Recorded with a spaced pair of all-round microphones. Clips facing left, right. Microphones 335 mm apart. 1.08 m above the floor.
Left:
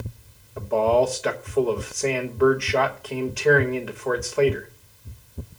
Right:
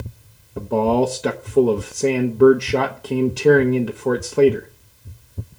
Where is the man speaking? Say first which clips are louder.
Right 3 dB; 45° right (ahead or behind), 1.0 m.